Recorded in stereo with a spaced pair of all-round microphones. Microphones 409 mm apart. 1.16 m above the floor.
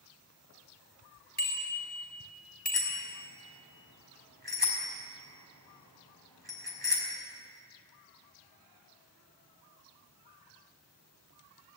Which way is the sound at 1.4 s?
25° left (ahead or behind).